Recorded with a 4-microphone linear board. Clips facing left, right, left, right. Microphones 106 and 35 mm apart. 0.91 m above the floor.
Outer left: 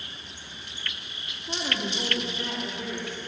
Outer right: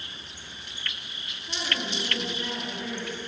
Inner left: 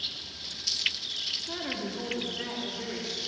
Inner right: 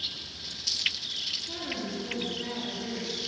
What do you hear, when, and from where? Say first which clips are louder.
1.5 s a woman speaking: outer left 2 dB, inner left 1 dB; 30° left (ahead or behind), 1.2 m; by 3.2 s 80° left, 2.5 m